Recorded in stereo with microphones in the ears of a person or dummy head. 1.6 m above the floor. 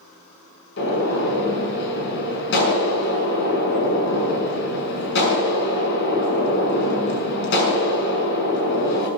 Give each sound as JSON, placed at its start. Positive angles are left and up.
{"t": 0.8, "sound": "a gunshot", "side_deg": 65, "distance_m": 6.5}